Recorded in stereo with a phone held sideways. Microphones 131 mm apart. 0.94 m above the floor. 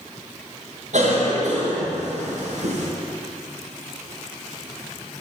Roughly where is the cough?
Right.